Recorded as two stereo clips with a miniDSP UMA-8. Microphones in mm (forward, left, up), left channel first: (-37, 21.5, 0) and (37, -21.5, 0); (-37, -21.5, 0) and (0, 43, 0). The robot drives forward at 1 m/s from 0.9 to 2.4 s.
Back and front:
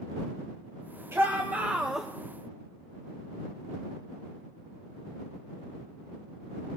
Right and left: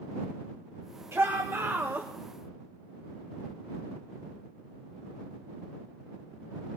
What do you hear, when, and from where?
1.1 s a shout: 20° left, 1.6 m; by 2.1 s 60° left, 1.0 m